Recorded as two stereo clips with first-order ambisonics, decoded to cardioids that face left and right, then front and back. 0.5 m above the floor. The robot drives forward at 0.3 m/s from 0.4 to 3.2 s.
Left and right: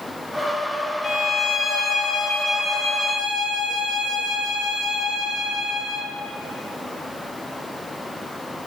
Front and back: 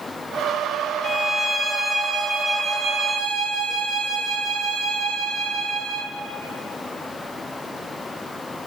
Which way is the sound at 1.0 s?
60° left.